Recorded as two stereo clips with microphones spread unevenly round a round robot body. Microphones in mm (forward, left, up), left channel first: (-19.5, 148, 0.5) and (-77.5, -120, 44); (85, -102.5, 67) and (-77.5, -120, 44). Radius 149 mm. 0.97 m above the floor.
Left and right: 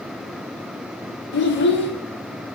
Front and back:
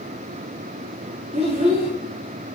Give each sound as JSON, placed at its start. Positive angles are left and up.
{"t": 1.3, "sound": "a child speaking", "azimuth_deg": 125, "distance_m": 1.7}